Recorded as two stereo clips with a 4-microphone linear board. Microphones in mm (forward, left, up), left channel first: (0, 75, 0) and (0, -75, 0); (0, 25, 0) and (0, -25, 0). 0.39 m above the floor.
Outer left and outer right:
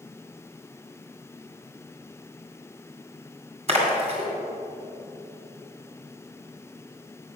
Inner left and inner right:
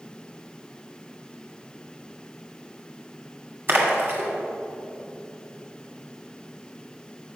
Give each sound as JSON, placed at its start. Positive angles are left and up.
{"t": 3.7, "sound": "a splash", "side_deg": -45, "distance_m": 2.0}